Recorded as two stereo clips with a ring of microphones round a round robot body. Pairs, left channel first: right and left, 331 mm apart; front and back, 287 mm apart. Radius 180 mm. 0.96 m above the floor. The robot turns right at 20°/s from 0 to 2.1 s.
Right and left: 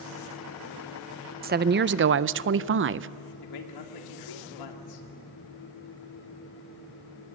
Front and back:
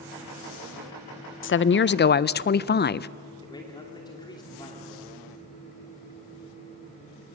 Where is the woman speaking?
35° left, 0.5 m; by 3.1 s 50° left, 0.5 m.